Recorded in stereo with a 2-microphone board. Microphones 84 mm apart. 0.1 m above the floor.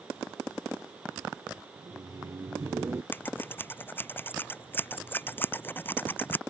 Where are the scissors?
25° left (ahead or behind).